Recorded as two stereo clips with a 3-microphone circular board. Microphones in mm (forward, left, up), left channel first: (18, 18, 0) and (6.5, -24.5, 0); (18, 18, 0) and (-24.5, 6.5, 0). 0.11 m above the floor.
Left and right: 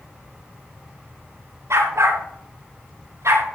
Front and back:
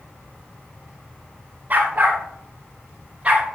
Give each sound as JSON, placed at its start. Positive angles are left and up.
{"t": 1.7, "sound": "a dog barking", "azimuth_deg": -110, "distance_m": 7.0}